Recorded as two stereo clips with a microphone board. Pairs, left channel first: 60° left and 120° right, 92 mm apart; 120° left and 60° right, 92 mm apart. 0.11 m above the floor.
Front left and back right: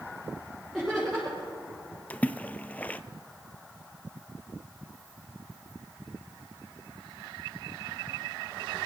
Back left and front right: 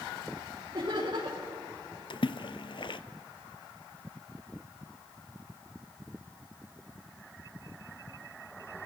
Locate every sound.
0.7 s laughter: 30° right, 5.5 m
2.1 s a splash: 130° left, 0.5 m